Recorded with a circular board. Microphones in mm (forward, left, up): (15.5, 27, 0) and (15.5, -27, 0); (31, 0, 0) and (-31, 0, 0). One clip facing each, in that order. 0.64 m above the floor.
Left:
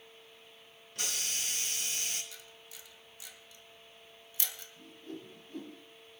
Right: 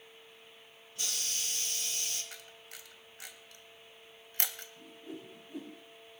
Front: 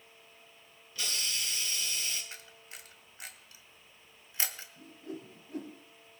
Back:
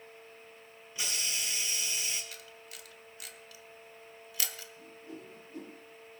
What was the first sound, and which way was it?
A hiss, 110° left.